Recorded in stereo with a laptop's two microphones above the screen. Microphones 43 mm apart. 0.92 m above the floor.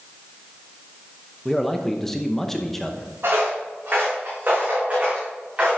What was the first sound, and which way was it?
A man speaking, 10° left (ahead or behind).